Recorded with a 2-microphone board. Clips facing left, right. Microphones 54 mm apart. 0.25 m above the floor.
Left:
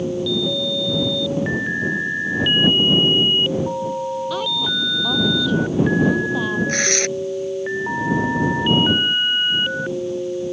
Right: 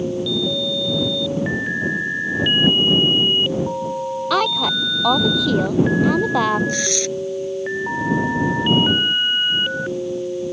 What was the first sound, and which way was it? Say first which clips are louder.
A woman speaking: right 4 dB; 80° right.